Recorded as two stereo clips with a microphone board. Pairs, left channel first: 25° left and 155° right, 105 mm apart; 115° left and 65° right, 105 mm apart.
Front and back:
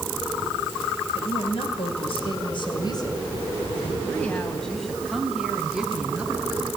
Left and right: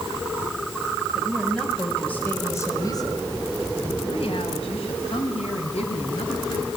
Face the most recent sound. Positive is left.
turn(degrees=125)